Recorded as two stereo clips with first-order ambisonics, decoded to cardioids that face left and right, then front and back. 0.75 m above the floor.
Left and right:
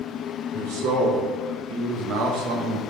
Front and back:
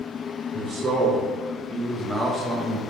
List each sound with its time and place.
0.5 s a man speaking: 105° right, 2.5 m; by 2.8 s 75° right, 1.1 m